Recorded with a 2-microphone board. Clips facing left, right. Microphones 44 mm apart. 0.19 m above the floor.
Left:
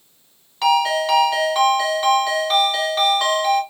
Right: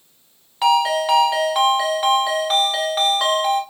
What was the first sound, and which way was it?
A ringtone, 10° right (ahead or behind).